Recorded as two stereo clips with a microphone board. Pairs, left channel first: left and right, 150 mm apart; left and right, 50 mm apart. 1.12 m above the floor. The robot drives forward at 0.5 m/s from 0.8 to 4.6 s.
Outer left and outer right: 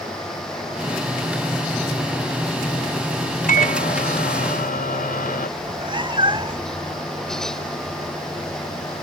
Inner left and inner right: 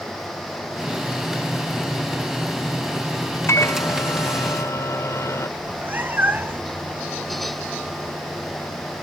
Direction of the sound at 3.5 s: 65° left (ahead or behind).